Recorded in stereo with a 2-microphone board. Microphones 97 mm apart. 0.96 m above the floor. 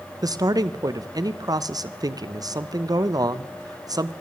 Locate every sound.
0.2 s a man speaking: 45° right (ahead or behind), 0.6 m